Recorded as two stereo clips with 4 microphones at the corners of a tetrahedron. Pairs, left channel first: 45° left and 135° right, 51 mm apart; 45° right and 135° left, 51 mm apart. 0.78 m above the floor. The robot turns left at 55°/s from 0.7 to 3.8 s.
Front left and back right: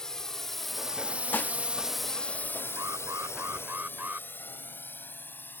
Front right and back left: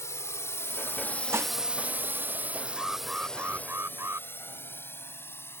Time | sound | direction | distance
0.0 | a drone | 35° right | ?
1.3 | dishes clattering | 100° left | ?
2.8 | an alarm | 130° right | ?